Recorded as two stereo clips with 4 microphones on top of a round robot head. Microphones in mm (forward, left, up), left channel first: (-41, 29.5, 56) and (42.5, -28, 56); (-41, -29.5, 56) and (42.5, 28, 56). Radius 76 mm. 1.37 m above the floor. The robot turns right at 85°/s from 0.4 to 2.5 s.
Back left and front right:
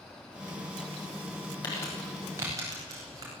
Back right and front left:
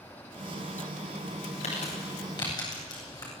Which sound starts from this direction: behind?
Crumpling, at 1.6 s.